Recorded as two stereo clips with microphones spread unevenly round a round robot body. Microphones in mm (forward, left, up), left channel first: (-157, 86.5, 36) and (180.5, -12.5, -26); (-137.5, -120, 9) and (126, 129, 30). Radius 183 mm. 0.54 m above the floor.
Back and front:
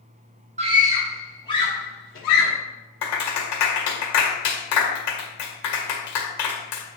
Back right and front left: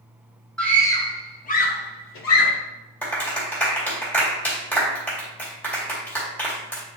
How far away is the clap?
About 2 m.